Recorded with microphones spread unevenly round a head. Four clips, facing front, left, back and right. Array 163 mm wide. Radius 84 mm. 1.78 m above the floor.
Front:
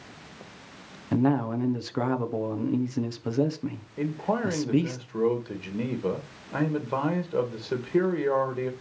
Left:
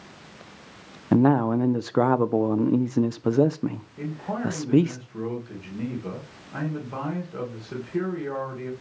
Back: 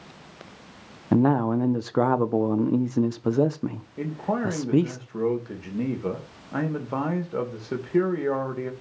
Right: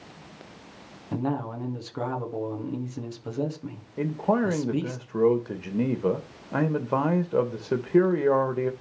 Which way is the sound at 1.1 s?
120° left.